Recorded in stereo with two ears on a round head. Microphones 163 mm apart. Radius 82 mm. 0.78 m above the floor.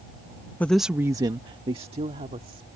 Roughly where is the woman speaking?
Centre.